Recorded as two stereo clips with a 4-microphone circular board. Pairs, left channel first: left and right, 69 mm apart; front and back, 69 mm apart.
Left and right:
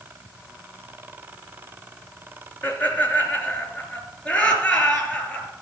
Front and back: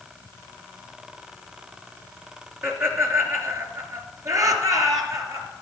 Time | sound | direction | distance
2.6 | laughter | 145° left | 2.5 m